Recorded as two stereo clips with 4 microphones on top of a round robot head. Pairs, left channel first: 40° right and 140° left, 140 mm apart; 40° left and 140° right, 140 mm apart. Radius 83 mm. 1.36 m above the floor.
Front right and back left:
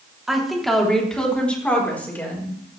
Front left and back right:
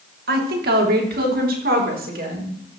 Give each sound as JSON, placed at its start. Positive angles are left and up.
{"t": 0.3, "sound": "a woman speaking", "azimuth_deg": -130, "distance_m": 3.0}